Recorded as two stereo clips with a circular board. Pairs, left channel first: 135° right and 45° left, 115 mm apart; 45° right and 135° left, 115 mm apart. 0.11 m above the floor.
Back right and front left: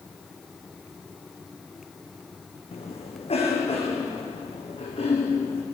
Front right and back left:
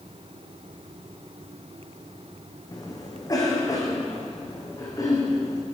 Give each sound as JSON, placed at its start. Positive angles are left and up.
{"t": 2.7, "sound": "a cough", "azimuth_deg": -105, "distance_m": 5.5}